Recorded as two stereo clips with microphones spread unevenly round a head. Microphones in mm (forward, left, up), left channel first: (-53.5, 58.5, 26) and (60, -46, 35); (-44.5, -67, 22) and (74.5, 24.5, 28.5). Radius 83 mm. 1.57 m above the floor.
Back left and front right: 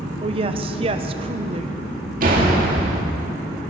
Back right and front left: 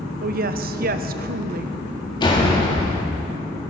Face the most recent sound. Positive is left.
turn(degrees=-80)